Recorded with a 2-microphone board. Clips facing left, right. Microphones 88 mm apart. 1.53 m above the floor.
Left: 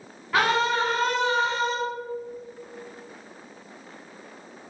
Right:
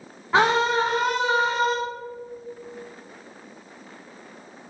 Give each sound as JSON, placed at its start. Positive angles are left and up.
{"t": 0.3, "sound": "a scream", "side_deg": -25, "distance_m": 0.9}